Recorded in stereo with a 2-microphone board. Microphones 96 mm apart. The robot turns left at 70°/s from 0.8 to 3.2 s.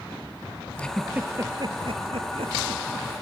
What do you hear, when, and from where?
0.8 s a giggle: 10° left (ahead or behind), 1.6 m; by 3.1 s 35° right (ahead or behind), 1.6 m